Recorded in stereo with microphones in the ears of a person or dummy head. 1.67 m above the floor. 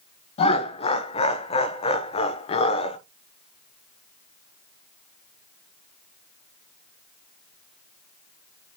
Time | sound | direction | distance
0.4 | laughter | 40° left (ahead or behind) | 0.9 m